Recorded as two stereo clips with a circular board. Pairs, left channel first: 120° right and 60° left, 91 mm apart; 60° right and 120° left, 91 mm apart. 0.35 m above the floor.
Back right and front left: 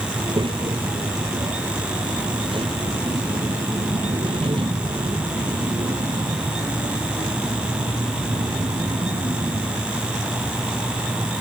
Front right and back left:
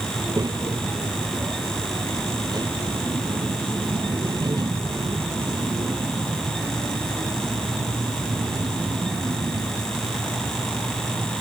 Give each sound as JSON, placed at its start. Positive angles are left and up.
{"t": 0.1, "sound": "a child speaking", "azimuth_deg": 75}